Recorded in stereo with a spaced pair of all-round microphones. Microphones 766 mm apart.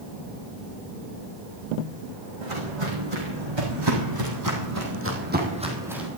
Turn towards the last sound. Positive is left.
turn(degrees=0)  # may be behind; listen again after turning